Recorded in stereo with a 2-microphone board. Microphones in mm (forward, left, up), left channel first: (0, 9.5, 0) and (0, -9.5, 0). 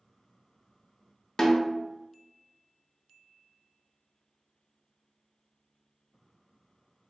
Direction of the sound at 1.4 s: 35° left (ahead or behind).